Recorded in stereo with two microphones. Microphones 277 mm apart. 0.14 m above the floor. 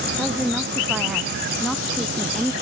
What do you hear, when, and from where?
0.1 s a woman speaking: 5° right (ahead or behind); by 2.5 s centre (ahead or behind)